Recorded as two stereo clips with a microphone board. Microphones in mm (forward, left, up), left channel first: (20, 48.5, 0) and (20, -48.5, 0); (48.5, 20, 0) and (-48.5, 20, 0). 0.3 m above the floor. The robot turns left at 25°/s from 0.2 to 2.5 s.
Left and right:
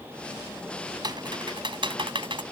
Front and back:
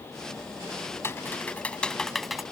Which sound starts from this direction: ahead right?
Typing on a keyboard, at 1.0 s.